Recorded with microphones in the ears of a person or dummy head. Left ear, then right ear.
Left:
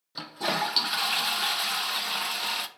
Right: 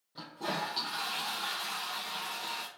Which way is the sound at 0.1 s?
60° left (ahead or behind).